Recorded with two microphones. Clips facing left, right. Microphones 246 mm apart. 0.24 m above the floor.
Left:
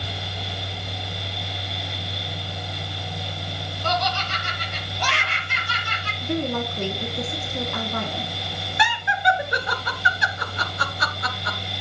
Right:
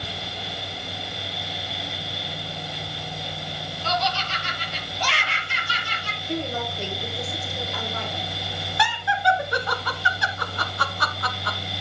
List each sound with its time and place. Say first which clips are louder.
3.8 s laughter: left 1 dB; 55° left (ahead or behind), 7 m; by 6.1 s 60° left (ahead or behind), 7.5 m
6.2 s a woman speaking: left 4 dB; 60° left (ahead or behind), 3 m
8.8 s laughter: even; 20° left (ahead or behind), 3 m